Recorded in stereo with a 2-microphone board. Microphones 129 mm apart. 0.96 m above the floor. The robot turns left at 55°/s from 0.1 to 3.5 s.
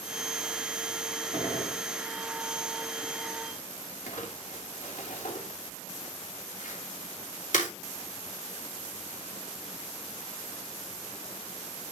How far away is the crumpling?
About 3 m.